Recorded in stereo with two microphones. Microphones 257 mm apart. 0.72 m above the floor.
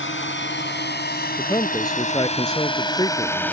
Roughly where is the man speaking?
Centre.